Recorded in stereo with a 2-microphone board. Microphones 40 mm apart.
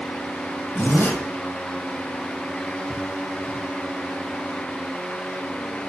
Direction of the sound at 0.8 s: 70° left (ahead or behind).